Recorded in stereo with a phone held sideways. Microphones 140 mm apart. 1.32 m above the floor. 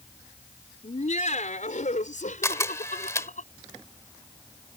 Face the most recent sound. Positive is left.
turn(degrees=20)  # may be behind; listen again after turning